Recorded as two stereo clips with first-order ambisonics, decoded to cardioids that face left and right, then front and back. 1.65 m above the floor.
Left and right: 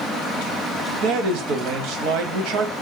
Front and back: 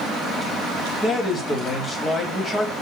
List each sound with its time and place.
1.0 s a man speaking: 80° right, 1.1 m